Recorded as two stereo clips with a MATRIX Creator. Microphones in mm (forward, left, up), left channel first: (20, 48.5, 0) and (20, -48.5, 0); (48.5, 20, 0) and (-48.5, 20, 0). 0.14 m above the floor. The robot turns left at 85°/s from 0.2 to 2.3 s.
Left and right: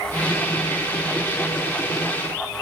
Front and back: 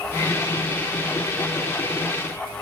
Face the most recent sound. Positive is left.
No sound to turn to.